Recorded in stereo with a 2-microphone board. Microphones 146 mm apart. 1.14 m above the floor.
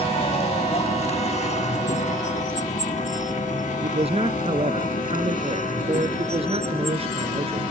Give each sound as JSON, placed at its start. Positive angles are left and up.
{"t": 0.0, "sound": "a vehicle", "side_deg": 45}
{"t": 3.8, "sound": "a man speaking", "side_deg": -40}